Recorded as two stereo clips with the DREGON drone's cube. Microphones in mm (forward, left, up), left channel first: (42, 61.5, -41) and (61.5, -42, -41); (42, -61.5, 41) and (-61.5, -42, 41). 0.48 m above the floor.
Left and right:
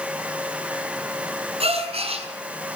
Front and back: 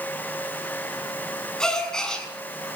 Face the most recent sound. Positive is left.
turn(degrees=-95)